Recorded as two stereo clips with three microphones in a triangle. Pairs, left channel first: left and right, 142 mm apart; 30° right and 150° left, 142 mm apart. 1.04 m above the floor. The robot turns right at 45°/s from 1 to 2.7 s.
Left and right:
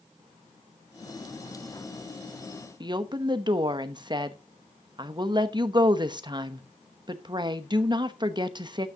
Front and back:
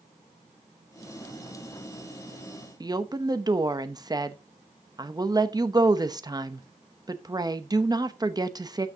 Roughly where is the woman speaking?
Behind right.